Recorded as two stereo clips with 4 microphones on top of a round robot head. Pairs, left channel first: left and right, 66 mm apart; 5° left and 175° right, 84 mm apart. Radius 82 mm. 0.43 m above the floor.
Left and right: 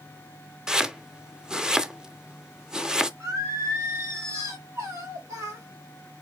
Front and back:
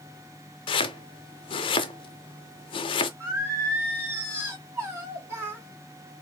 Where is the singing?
125° right, 2.5 m.